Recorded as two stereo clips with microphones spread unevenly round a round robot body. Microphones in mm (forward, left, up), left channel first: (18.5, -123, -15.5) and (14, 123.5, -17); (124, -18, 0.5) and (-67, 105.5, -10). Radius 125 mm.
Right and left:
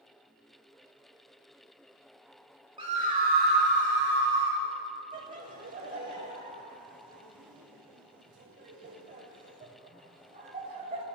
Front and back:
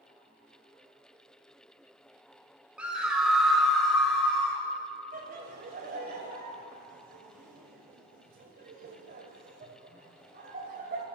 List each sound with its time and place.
2.8 s a scream: 80° left, 1.0 m; by 4.6 s 55° left, 2.5 m
5.1 s laughter: 135° left, 1.1 m